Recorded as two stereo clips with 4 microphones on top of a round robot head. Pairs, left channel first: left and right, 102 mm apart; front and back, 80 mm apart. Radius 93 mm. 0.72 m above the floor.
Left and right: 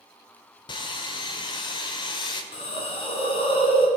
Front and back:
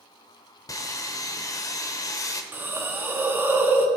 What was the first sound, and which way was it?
Sawing, 50° left.